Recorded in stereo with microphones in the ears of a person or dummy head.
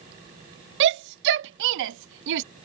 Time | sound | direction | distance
0.8 | a shout | 65° right (ahead or behind) | ?